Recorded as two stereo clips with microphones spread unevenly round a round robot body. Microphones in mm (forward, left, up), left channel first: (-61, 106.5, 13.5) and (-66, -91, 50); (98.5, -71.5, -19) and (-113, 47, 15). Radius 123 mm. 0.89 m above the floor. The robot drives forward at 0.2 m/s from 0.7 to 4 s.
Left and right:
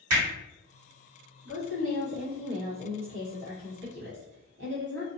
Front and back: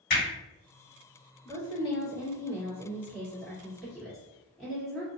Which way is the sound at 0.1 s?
70° right.